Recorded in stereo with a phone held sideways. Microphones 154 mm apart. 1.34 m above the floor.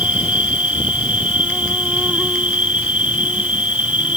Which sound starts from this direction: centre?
An insect, at 0.0 s.